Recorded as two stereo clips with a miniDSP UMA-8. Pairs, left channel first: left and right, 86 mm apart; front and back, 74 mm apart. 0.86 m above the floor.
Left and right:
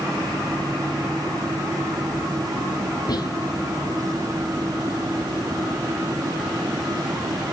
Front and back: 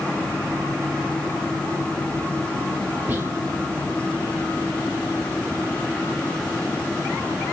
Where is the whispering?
120° left, 0.7 m.